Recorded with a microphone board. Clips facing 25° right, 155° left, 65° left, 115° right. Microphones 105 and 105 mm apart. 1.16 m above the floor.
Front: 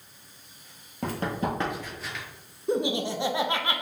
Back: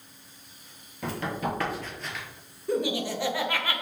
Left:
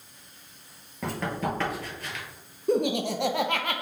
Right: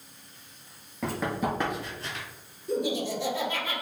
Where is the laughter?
45° left, 0.5 m.